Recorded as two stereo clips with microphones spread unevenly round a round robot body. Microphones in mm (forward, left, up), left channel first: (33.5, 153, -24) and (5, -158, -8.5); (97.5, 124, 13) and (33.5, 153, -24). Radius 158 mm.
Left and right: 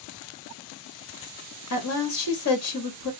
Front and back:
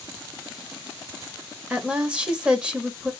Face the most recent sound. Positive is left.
turn(degrees=110)